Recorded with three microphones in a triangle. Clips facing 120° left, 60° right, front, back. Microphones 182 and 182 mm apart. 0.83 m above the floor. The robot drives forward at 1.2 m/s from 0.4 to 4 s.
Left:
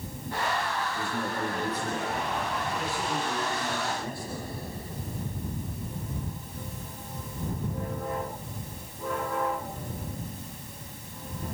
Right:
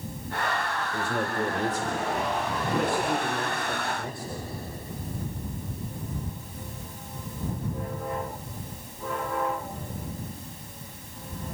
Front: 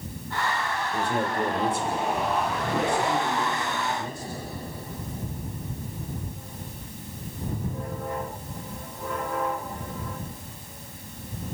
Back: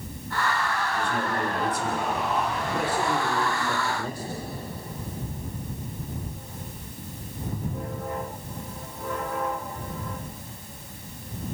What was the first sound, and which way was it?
A man speaking, 45° right.